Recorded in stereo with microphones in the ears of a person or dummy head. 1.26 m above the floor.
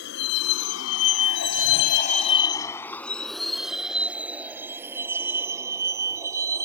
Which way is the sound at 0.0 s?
60° left (ahead or behind).